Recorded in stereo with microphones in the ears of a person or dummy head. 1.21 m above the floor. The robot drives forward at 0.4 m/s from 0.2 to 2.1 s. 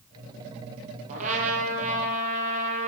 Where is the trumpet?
40° right (ahead or behind), 9.5 m.